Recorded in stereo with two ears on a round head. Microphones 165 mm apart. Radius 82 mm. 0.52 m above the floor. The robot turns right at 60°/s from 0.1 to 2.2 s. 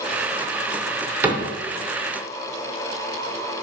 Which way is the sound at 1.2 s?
10° right (ahead or behind).